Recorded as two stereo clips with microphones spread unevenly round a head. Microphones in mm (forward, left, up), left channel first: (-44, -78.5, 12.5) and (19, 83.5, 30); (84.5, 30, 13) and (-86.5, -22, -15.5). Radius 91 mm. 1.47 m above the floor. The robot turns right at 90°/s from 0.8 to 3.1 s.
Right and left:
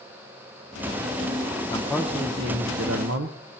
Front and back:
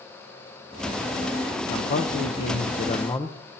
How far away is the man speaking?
About 0.8 m.